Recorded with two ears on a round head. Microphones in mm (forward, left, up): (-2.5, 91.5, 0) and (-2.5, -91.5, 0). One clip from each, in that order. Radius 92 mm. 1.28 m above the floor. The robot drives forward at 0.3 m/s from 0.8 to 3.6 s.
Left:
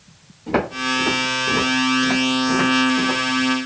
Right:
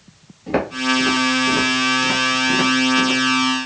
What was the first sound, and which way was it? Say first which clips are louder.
Footsteps: right 1 dB; 10° right (ahead or behind).